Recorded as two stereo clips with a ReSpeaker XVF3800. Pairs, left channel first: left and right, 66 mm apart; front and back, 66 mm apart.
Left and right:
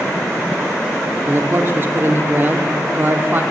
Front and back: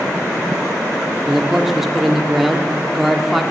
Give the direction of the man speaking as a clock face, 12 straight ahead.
3 o'clock.